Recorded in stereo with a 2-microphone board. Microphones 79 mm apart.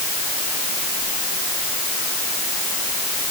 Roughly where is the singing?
I don't hear singing.